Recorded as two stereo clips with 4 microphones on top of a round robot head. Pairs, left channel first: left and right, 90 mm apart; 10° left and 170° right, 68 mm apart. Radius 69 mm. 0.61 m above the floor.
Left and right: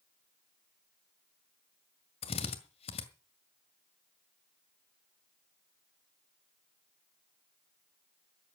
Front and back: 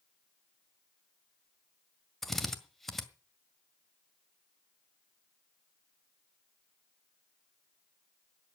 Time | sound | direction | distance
2.2 | a drill | 95° left | 1.9 m